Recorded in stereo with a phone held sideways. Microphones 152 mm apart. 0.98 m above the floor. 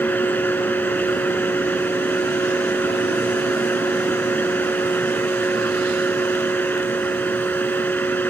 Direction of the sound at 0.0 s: 10° left (ahead or behind).